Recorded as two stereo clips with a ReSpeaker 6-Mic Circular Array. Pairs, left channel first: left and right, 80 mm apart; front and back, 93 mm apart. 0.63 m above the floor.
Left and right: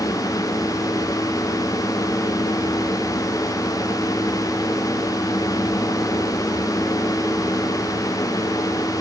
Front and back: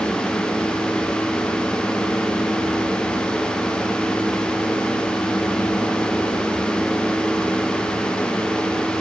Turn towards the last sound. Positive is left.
No sound to turn to.